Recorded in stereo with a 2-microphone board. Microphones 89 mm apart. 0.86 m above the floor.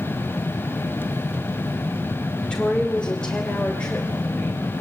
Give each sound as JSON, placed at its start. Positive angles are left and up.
{"t": 2.4, "sound": "a woman speaking", "side_deg": 10, "distance_m": 3.0}